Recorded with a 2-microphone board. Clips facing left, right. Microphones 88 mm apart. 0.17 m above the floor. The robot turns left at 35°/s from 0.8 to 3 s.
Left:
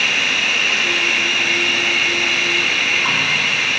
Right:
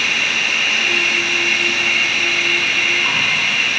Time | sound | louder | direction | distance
0.0 | an insect | even | 95° left | 1.9 m